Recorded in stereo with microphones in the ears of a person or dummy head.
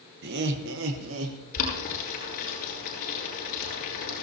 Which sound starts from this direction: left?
Boiling, at 1.5 s.